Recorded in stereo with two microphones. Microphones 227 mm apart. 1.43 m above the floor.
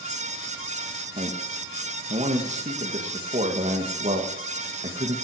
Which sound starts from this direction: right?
A man speaking, at 1.2 s.